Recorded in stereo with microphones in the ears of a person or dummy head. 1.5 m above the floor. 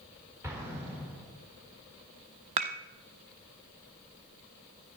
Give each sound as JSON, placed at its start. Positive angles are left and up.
{"t": 0.4, "sound": "an explosion", "side_deg": -15, "distance_m": 3.5}
{"t": 2.6, "sound": "dishes clattering", "side_deg": -20, "distance_m": 0.8}